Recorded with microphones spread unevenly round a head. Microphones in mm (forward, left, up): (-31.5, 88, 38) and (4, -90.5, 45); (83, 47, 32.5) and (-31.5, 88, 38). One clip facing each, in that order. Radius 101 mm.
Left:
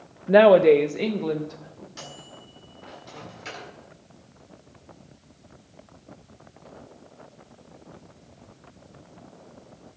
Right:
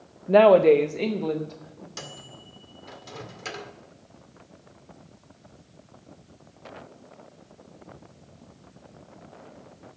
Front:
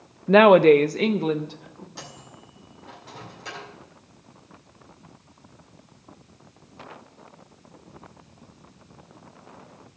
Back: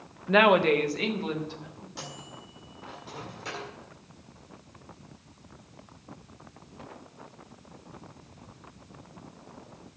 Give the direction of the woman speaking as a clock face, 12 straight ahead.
11 o'clock.